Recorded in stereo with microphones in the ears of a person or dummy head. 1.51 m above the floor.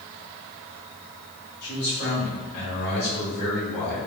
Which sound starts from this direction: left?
A man speaking, at 1.6 s.